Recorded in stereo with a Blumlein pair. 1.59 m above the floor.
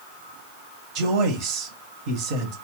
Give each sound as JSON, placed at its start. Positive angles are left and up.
{"t": 0.9, "sound": "a man speaking", "azimuth_deg": -40, "distance_m": 1.0}